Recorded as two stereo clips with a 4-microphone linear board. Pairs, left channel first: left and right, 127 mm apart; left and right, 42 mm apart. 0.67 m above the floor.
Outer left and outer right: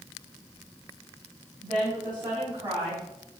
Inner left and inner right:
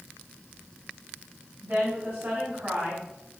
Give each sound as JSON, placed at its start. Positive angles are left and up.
{"t": 1.6, "sound": "a woman speaking", "side_deg": -30, "distance_m": 3.5}